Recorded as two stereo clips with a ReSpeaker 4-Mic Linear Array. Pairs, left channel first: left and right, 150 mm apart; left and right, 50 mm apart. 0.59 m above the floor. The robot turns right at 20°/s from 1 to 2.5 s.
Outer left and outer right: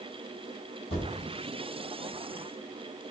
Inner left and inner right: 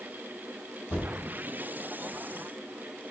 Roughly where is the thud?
Left.